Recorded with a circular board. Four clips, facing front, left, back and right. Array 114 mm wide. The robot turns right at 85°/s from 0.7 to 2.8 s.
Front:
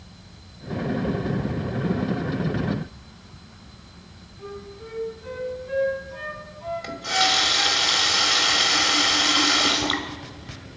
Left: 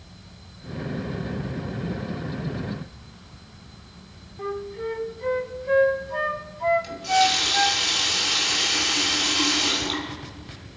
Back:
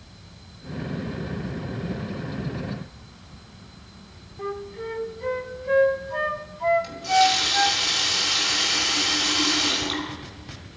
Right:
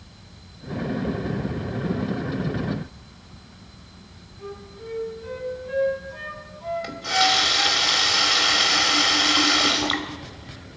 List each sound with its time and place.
4.4 s a flute: 130° left, 1.0 m
6.8 s a running tap: 55° right, 1.6 m